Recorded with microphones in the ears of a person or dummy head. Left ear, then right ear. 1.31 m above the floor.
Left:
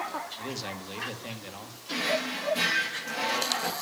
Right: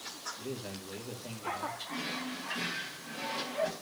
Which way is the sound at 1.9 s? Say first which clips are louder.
Left 9 dB; 35° left (ahead or behind).